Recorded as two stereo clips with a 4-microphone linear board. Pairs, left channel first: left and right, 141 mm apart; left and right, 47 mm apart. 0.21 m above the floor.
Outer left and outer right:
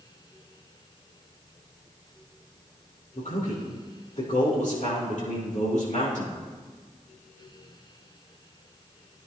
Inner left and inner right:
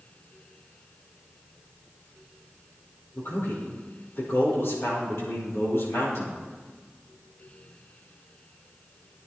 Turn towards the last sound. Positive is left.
turn(degrees=70)  # may be behind; listen again after turning